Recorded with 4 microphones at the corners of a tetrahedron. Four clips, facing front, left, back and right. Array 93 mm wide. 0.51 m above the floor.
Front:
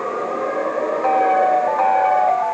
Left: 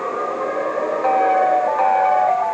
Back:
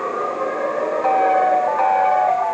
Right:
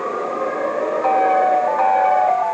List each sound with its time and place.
Only background noise.